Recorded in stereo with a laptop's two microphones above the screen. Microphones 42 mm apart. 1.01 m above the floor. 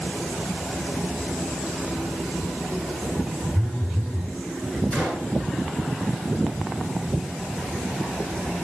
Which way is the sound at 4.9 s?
40° left (ahead or behind).